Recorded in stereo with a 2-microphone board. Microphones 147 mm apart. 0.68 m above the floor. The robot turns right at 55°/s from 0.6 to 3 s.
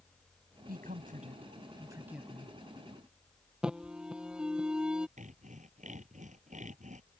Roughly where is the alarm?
Centre.